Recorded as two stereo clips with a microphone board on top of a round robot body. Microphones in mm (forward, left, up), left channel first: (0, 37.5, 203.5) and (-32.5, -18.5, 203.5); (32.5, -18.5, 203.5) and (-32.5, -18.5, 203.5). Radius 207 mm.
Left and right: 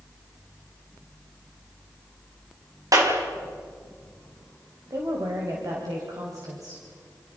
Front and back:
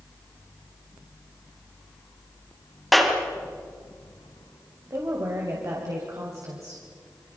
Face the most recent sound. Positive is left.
turn(degrees=-145)